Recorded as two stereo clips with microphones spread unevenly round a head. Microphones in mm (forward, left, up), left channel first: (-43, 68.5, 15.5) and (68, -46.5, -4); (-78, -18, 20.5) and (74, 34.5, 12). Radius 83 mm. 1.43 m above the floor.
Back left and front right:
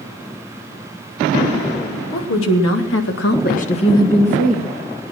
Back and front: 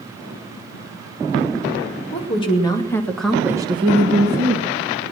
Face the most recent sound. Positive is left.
turn(degrees=40)